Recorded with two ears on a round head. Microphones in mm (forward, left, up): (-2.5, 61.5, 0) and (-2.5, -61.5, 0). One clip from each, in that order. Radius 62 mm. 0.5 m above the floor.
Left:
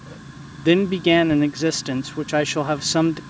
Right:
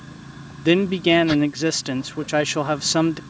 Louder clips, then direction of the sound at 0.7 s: Left 1 dB; 10° right (ahead or behind).